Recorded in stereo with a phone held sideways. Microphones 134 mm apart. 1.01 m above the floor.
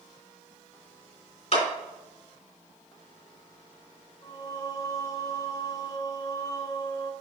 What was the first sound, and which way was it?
A clap, 50° left (ahead or behind).